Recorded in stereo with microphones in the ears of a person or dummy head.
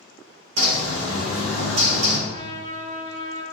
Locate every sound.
0.6 s a bird: 80° right, 1.0 m
2.3 s a trumpet: 35° right (ahead or behind), 1.0 m